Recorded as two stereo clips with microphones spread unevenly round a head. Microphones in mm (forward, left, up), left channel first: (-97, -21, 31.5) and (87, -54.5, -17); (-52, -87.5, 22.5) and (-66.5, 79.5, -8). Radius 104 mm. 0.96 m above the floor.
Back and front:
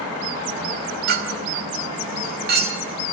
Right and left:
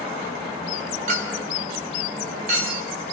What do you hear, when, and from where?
1.1 s a clink: 35° left, 3.5 m